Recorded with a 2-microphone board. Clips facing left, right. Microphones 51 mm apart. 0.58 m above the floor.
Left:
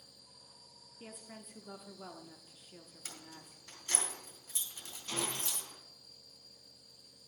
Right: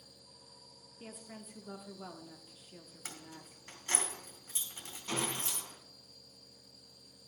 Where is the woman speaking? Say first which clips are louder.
Right 1 dB; 5° right (ahead or behind), 0.9 m.